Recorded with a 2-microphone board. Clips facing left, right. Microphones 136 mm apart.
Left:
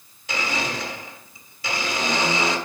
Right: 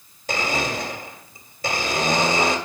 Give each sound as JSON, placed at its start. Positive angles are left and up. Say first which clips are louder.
{"t": 0.3, "sound": "a blender", "louder": "right 3 dB", "side_deg": -45, "distance_m": 1.5}